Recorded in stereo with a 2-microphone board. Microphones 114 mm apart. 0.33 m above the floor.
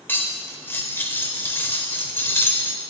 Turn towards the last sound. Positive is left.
turn(degrees=20)  # may be behind; listen again after turning